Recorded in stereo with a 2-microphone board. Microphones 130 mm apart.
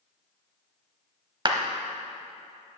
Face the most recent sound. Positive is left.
turn(degrees=-40)  # may be behind; listen again after turning